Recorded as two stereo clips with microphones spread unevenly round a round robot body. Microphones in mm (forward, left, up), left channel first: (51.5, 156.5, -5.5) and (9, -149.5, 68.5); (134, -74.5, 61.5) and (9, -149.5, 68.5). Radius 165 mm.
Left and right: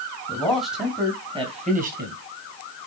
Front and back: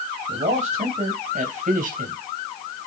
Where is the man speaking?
160° left, 3 m; by 2.1 s 160° right, 2.5 m.